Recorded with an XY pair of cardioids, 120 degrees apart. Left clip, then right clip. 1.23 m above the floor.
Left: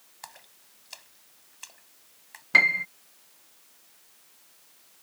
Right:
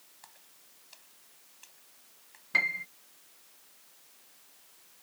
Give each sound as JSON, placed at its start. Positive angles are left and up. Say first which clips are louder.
{"t": 0.2, "sound": "a splash", "louder": "left 12 dB", "azimuth_deg": 55}
{"t": 2.5, "sound": "a piano", "louder": "left 8 dB", "azimuth_deg": 45}